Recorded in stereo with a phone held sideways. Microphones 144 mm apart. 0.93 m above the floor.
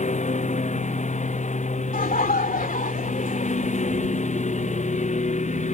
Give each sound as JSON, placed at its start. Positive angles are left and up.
{"t": 0.0, "sound": "a lawn mower", "side_deg": 55}
{"t": 1.9, "sound": "laughter", "side_deg": 75}